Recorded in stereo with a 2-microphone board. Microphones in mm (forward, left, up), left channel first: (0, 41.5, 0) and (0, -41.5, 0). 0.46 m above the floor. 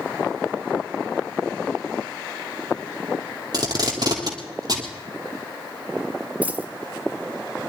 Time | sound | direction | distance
3.5 | tape being pulled | 50° right (ahead or behind) | 2.5 m
6.4 | a dropped coin | 15° right (ahead or behind) | 1.2 m